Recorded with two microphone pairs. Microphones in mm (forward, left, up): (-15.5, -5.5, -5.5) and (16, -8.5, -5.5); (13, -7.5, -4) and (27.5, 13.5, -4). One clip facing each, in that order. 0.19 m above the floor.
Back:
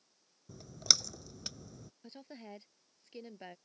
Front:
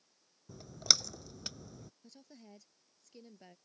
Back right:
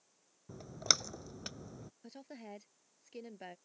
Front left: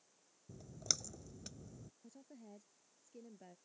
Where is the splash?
90° right.